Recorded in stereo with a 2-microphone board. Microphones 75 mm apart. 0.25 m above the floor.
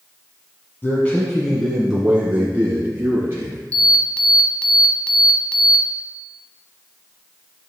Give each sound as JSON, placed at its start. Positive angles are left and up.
{"t": 0.8, "sound": "a man speaking", "side_deg": 25, "distance_m": 1.7}
{"t": 3.7, "sound": "an alarm", "side_deg": 15, "distance_m": 1.0}